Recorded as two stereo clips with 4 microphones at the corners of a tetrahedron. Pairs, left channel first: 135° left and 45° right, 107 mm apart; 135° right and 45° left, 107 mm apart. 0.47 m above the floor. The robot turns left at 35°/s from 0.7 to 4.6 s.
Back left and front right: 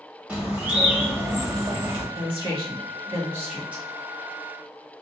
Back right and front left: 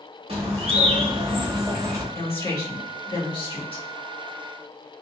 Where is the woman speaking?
65° right, 1.9 m; by 3.8 s 125° right, 1.9 m.